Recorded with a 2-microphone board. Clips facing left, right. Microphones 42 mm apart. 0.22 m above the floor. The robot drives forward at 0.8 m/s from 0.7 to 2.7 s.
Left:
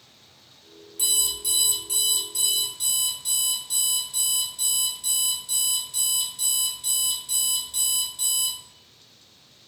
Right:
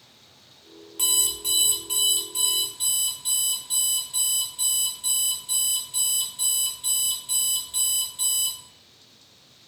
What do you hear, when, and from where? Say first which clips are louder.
1.0 s an alarm clock: right 1 dB; 50° right (ahead or behind), 1.1 m; by 8.6 s 25° right (ahead or behind), 1.9 m